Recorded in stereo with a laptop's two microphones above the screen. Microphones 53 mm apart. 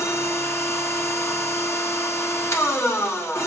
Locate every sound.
0.0 s a machine running: 55° left (ahead or behind), 1.0 m